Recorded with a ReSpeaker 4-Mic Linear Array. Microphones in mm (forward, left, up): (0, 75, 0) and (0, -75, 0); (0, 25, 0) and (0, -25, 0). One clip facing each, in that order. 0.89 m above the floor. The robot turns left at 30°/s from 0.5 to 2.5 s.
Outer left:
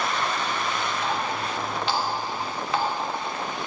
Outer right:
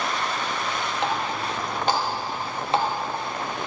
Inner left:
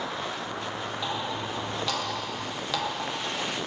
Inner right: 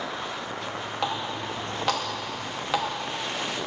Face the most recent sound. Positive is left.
turn(degrees=-30)  # may be behind; listen again after turning